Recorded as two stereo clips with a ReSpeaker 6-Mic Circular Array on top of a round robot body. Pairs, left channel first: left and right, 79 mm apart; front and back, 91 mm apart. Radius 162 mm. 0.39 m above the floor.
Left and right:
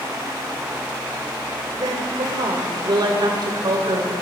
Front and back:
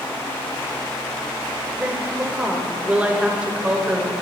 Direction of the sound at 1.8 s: 105° right.